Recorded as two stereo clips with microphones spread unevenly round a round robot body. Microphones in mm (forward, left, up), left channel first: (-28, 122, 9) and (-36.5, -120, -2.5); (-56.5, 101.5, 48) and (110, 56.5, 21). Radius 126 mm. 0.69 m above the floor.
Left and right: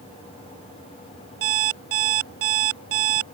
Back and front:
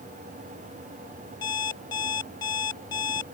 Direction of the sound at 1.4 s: 120° right.